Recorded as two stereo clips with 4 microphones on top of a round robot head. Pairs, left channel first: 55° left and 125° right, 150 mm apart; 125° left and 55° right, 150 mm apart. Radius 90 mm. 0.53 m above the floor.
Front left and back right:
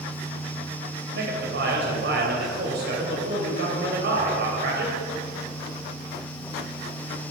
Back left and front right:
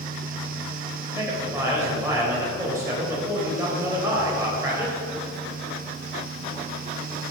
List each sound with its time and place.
1.1 s a man speaking: 130° right, 3 m